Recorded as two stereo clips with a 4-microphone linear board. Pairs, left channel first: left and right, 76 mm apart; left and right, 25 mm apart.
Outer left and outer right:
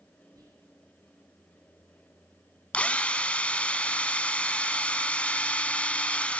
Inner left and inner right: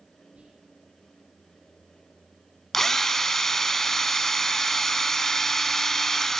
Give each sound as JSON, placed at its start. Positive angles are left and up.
{"t": 0.3, "sound": "whispering", "side_deg": -50, "distance_m": 6.5}
{"t": 2.7, "sound": "a drill", "side_deg": 15, "distance_m": 1.0}